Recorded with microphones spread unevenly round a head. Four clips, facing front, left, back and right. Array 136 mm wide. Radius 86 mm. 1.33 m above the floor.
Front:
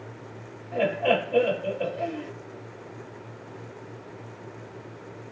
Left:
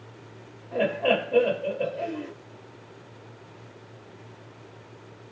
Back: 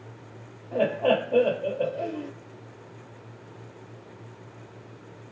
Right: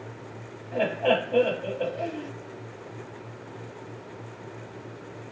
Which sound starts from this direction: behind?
Laughter, at 0.7 s.